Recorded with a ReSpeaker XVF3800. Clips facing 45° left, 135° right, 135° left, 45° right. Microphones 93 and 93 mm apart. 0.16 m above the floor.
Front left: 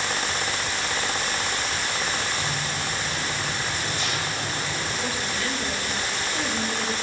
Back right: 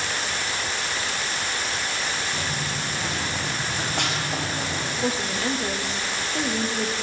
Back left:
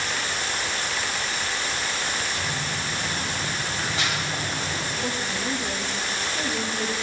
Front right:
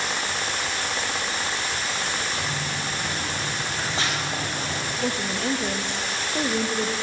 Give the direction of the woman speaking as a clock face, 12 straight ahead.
2 o'clock.